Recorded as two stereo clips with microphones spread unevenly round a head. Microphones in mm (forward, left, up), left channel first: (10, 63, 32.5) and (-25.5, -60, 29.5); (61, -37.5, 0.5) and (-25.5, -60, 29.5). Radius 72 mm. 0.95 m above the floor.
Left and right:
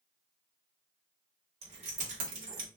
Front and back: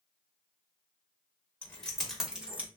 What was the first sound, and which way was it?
Keys jangling, 60° right.